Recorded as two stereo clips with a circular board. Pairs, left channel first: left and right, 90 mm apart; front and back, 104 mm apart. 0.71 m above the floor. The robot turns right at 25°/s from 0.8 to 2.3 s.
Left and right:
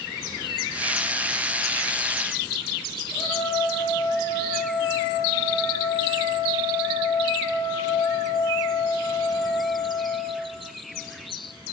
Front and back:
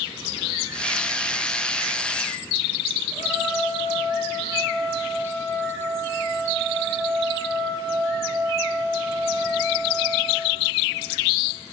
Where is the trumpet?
125° left, 8.5 m.